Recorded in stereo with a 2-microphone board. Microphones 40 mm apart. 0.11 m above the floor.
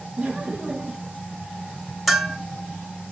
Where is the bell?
Centre (ahead or behind), 0.8 m.